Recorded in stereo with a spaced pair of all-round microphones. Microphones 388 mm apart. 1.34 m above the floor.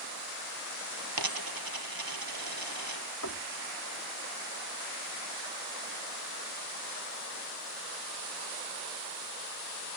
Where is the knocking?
45° left (ahead or behind).